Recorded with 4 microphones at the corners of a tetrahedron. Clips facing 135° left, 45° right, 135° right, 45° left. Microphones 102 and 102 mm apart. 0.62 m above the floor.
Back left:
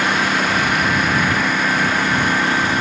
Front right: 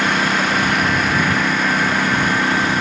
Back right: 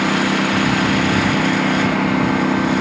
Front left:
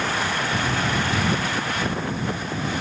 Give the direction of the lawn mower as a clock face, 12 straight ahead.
5 o'clock.